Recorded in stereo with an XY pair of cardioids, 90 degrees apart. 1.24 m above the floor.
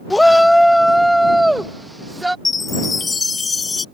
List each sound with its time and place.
0.1 s a shout: 15° left; by 2.4 s 5° right
2.5 s a chime: 40° left